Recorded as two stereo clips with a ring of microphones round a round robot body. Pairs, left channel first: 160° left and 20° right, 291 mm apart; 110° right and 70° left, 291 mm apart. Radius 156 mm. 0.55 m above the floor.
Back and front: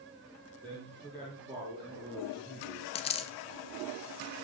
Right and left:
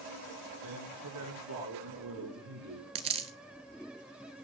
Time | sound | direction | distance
0.6 | a man speaking | 55° left | 8.5 m
3.0 | a dropped coin | 115° left | 0.5 m